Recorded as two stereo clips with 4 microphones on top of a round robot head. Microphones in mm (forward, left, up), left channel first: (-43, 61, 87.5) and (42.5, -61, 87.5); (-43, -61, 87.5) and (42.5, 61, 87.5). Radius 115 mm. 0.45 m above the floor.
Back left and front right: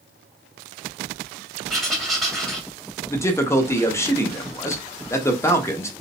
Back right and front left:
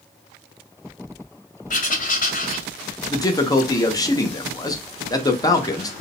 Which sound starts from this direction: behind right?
Writing, at 1.7 s.